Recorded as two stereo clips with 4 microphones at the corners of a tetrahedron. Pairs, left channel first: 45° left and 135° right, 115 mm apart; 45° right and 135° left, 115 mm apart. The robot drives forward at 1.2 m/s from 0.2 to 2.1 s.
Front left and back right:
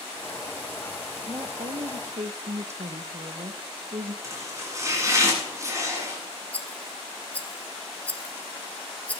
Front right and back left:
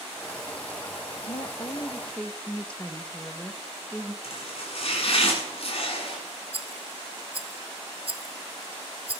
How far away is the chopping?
About 8.5 m.